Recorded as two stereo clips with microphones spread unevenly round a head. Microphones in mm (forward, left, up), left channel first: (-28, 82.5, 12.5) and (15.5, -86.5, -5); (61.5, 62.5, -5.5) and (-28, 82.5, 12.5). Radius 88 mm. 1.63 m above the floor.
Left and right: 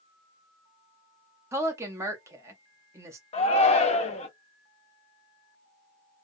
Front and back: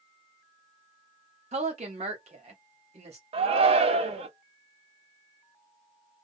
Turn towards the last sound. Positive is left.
turn(degrees=160)